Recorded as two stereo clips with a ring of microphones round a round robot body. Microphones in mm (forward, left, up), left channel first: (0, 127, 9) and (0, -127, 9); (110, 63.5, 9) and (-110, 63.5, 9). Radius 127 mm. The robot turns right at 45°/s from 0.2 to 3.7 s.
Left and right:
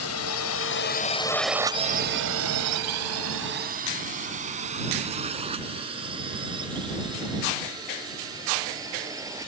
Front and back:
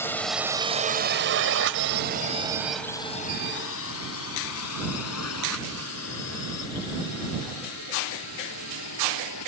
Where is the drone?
80° left; by 9.5 s 10° right.